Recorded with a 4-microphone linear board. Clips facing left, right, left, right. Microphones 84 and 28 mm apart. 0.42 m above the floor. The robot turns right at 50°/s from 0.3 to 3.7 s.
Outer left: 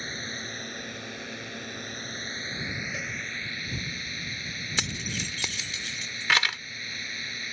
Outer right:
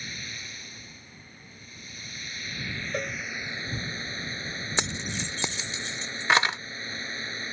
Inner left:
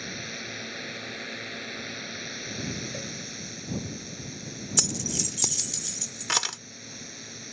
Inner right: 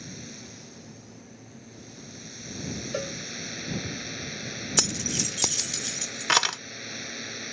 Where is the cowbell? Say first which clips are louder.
Outer right 4 dB, inner right 4 dB; 50° right (ahead or behind); by 3.2 s 55° right (ahead or behind).